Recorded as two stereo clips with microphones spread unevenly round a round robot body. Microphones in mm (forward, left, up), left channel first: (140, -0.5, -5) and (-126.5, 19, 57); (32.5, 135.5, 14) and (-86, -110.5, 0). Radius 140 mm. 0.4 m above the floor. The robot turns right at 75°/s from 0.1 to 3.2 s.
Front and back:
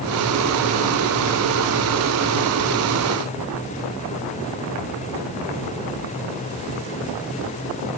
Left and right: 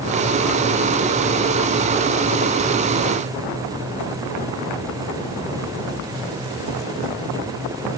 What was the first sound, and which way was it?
Only background noise.